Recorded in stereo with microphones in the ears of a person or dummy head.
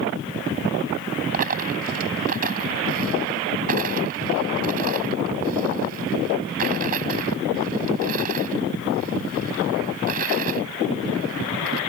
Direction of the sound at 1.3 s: 50° right (ahead or behind).